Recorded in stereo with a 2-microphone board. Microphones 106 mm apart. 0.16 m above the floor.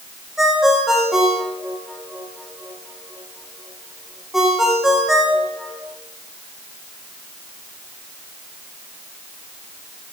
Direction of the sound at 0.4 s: Centre (ahead or behind).